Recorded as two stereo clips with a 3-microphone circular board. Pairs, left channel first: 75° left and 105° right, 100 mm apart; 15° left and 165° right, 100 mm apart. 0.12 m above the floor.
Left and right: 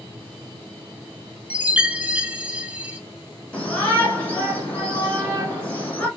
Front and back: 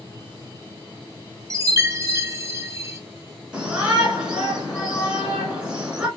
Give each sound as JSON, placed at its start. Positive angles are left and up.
{"t": 1.5, "sound": "a chime", "azimuth_deg": -170, "distance_m": 0.5}
{"t": 3.5, "sound": "a shout", "azimuth_deg": 130, "distance_m": 1.7}